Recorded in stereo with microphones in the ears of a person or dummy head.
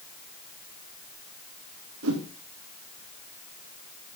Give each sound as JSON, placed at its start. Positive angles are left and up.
{"t": 2.0, "sound": "a whoosh", "side_deg": -80, "distance_m": 1.7}